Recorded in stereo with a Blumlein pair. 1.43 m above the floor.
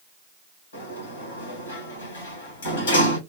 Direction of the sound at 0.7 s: 65° left.